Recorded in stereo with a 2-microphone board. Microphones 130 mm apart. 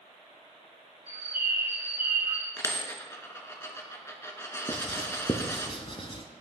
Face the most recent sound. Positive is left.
turn(degrees=45)  # may be behind; listen again after turning